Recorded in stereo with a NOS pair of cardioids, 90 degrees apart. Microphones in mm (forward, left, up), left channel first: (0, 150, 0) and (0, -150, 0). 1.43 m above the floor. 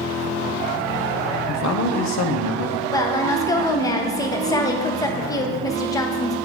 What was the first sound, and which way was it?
A man speaking, 70° left.